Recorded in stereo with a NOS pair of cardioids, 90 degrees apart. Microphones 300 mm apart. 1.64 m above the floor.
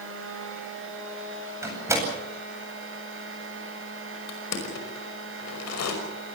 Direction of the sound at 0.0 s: 40° right.